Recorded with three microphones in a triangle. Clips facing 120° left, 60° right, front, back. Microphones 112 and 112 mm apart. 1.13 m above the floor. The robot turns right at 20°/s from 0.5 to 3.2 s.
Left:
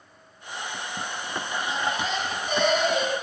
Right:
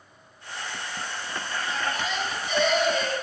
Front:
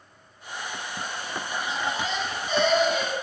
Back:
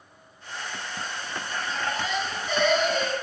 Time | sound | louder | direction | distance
1.7 | a baby crying | left 2 dB, even | 60° left | 7.5 m